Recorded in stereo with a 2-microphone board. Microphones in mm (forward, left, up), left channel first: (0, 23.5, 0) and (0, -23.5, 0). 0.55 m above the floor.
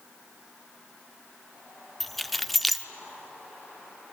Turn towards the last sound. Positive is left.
turn(degrees=0)  # may be behind; listen again after turning